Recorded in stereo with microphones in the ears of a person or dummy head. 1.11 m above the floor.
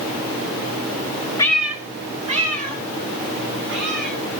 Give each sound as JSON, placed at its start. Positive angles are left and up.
{"t": 1.4, "sound": "a cat meowing", "side_deg": 15, "distance_m": 1.3}